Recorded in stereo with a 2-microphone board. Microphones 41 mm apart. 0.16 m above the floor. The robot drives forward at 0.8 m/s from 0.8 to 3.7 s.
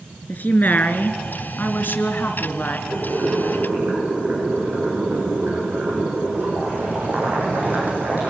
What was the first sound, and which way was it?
A woman speaking, 45° left (ahead or behind).